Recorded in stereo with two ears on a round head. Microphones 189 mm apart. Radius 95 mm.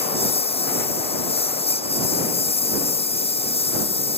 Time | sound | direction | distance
0.0 | a lawn mower | 30° left (ahead or behind) | ?